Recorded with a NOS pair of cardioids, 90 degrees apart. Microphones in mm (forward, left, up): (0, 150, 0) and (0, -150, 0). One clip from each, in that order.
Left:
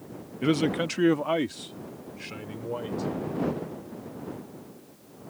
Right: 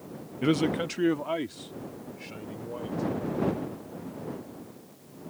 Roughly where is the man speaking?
Ahead.